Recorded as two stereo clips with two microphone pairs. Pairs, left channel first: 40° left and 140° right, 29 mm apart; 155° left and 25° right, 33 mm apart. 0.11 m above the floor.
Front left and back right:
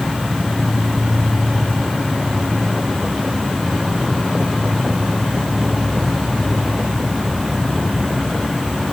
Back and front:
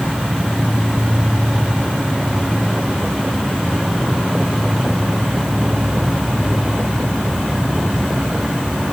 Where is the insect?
20° right, 3 m.